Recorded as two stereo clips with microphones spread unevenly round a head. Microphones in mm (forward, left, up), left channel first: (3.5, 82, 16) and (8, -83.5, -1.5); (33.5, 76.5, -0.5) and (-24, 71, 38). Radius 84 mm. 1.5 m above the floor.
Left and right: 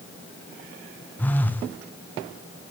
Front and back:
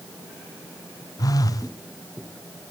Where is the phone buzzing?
10° left, 1.3 m.